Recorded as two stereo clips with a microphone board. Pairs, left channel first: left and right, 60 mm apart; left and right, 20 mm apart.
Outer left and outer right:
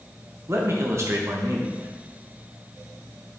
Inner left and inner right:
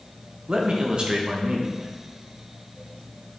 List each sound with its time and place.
0.5 s a man speaking: 45° right (ahead or behind), 1.3 m